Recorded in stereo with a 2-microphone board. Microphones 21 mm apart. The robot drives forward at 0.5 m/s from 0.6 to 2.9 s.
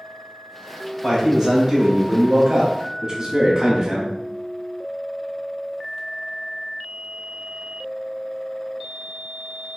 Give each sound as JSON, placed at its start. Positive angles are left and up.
{"t": 1.0, "sound": "a man speaking", "side_deg": -15, "distance_m": 1.9}